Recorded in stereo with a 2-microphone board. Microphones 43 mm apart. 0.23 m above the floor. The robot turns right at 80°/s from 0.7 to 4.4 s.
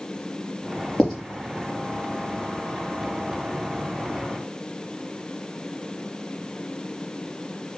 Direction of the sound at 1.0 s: 10° left (ahead or behind).